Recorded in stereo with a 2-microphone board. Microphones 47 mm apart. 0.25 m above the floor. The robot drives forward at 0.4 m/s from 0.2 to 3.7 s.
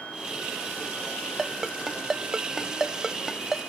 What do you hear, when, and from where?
1.4 s a ringtone: 5° right (ahead or behind), 0.9 m